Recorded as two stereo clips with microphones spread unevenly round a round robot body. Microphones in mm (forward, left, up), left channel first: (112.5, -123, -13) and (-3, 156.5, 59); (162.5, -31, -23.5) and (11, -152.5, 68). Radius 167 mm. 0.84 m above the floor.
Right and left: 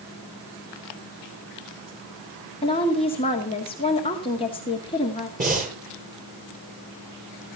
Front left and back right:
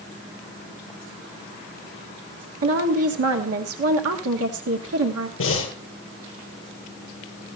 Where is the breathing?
50° left, 8.5 m.